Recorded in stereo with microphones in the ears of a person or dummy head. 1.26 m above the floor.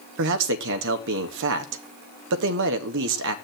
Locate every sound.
0.2 s a man speaking: 70° right (ahead or behind), 1.5 m